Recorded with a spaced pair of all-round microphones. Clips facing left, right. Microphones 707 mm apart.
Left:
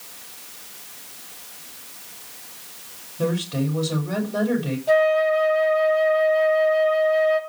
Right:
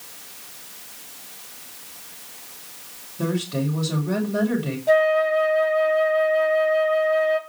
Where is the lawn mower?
I don't hear a lawn mower.